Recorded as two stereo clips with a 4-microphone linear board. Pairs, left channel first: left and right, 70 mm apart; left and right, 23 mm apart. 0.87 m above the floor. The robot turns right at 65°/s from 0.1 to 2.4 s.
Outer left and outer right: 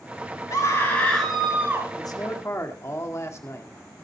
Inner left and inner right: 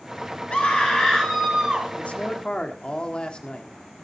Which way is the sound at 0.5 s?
130° left.